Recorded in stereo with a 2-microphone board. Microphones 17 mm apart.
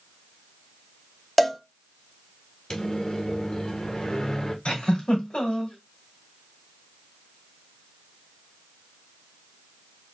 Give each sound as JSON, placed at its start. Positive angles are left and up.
{"t": 1.4, "sound": "a cowbell", "side_deg": 5, "distance_m": 0.7}
{"t": 2.7, "sound": "a microwave", "side_deg": 40, "distance_m": 0.8}
{"t": 4.7, "sound": "a giggle", "side_deg": 70, "distance_m": 2.0}